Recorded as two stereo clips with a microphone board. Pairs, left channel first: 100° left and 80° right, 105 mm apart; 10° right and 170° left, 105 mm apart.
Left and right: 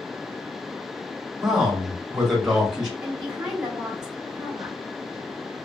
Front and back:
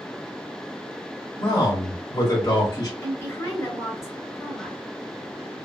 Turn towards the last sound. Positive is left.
turn(degrees=-10)